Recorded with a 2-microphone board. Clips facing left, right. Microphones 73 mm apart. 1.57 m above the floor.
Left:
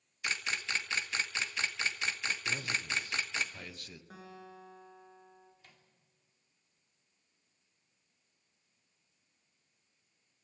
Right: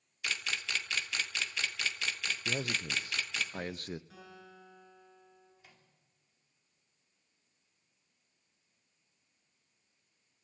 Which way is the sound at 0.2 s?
25° left (ahead or behind).